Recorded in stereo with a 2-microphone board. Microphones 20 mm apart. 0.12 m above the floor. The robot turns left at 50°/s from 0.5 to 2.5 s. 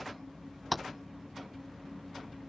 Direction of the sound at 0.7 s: Centre (ahead or behind).